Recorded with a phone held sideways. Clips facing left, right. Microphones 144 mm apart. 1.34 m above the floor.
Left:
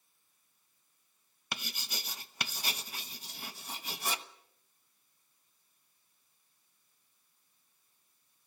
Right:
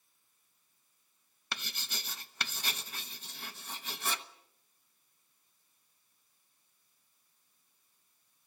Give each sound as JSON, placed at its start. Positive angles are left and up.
{"t": 1.5, "sound": "writing", "side_deg": 10, "distance_m": 1.1}